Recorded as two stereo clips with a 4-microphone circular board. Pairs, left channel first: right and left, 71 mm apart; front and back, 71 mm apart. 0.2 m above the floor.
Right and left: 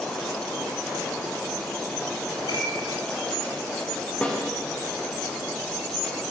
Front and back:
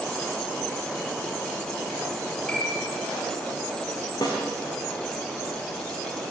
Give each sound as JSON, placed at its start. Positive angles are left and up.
{"t": 2.5, "sound": "a piano", "azimuth_deg": -80, "distance_m": 5.5}
{"t": 4.2, "sound": "a snare drum", "azimuth_deg": -15, "distance_m": 6.5}